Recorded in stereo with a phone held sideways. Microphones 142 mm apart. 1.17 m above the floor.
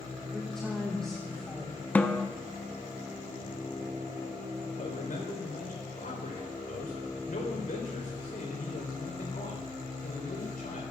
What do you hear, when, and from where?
0.3 s a woman speaking: 5° left (ahead or behind), 1.5 m
1.9 s a snare drum: 10° left (ahead or behind), 0.6 m
4.8 s a man speaking: 80° left, 4 m